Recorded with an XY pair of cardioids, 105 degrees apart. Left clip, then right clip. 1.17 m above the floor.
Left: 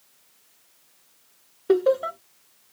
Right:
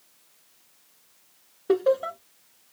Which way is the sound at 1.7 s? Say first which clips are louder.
Left 2 dB; 10° left.